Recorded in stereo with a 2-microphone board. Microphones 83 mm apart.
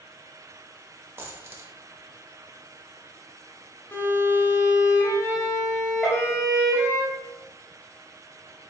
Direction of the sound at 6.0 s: 30° left (ahead or behind).